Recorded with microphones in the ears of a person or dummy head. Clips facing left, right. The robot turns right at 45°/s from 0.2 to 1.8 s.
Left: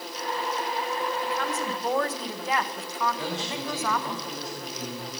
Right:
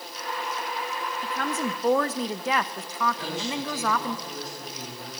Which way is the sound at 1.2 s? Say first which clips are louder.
Even; 35° right (ahead or behind).